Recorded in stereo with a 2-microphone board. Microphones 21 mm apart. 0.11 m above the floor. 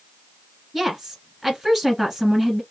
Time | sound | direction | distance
0.7 | a woman speaking | 5° right (ahead or behind) | 1.9 m